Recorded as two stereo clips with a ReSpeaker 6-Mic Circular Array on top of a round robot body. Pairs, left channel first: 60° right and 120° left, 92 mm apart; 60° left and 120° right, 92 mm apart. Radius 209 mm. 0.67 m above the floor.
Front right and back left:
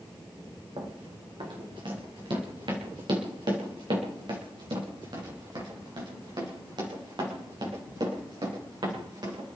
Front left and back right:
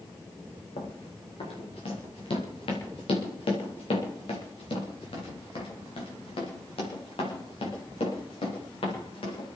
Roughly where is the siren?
I don't hear a siren.